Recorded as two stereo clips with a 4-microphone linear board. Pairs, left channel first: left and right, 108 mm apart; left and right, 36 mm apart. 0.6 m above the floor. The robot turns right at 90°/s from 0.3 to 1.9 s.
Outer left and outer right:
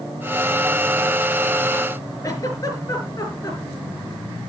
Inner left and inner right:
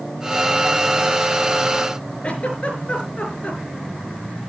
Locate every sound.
2.2 s a giggle: 30° left (ahead or behind), 4.5 m